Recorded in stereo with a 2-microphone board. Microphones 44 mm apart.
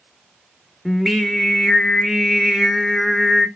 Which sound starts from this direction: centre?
Singing, at 0.8 s.